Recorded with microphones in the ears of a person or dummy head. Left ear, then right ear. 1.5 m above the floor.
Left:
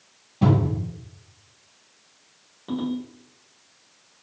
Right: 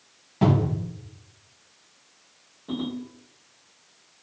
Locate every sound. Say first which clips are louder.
0.4 s a cupboard door: even; 40° right (ahead or behind), 1.3 m
2.7 s a ringtone: left 3 dB; 30° left (ahead or behind), 1.4 m